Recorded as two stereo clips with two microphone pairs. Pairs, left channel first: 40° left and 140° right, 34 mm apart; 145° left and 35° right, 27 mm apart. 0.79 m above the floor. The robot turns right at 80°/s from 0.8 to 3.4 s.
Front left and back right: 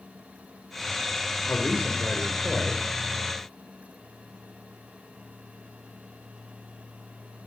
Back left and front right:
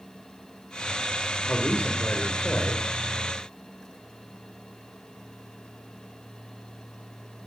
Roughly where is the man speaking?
Left.